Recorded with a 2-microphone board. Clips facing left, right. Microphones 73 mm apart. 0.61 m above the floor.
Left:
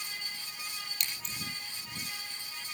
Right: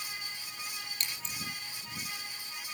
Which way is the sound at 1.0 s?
35° right (ahead or behind).